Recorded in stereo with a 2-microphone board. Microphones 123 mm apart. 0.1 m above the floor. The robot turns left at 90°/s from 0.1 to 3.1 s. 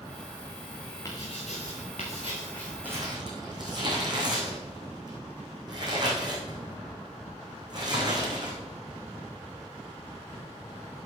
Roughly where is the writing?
Behind left.